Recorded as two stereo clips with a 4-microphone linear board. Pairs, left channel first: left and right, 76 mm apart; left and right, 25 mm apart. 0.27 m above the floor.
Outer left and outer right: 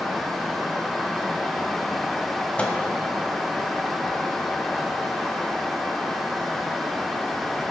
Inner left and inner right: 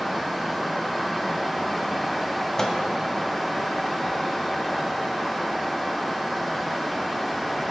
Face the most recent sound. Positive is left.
turn(degrees=20)  # may be behind; listen again after turning